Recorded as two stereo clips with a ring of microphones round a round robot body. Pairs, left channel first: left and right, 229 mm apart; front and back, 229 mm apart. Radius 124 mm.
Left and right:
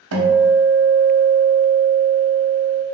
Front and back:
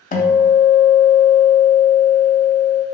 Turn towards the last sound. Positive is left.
turn(degrees=-60)